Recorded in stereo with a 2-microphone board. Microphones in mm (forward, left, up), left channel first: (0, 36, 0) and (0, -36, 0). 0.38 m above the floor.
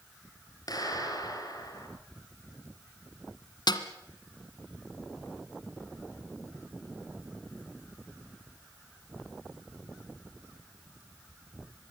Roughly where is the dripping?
No dripping in this recording.